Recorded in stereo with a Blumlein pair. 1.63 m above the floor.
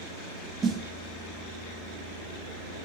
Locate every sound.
0.6 s a snare drum: 20° right, 1.7 m